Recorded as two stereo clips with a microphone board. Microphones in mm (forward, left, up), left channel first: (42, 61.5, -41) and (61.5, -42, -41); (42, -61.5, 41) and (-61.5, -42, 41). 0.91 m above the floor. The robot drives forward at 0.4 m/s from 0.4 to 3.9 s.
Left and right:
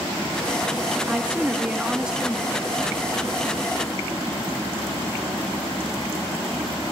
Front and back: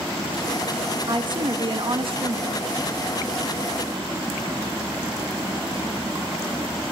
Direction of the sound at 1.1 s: 155° right.